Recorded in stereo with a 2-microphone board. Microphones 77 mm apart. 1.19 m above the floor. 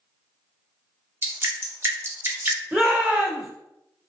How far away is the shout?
About 1.7 m.